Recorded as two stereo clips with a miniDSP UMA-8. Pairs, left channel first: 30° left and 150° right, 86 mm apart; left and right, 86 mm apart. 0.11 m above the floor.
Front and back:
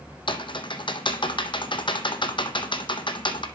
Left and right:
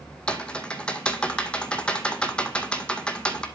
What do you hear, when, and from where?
0.3 s typing on a keyboard: 10° left, 0.7 m